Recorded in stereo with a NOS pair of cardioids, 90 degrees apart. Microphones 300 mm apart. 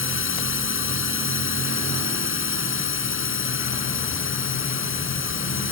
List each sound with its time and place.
0.0 s a drone: 40° left